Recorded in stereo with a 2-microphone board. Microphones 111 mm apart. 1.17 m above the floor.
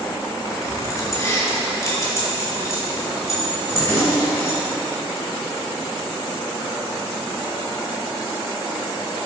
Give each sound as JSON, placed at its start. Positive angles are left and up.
{"t": 0.5, "sound": "keys jangling", "side_deg": 35, "distance_m": 2.5}